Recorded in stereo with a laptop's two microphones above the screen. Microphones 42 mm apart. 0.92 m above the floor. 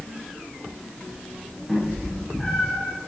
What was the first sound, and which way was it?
A cat meowing, 5° left (ahead or behind).